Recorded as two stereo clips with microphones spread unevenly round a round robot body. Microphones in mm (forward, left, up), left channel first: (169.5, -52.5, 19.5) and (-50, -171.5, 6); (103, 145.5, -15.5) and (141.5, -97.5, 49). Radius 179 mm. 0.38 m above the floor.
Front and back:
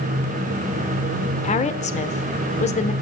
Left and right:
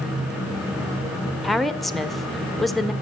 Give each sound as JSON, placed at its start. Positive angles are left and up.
{"t": 1.4, "sound": "a woman speaking", "azimuth_deg": 50, "distance_m": 0.9}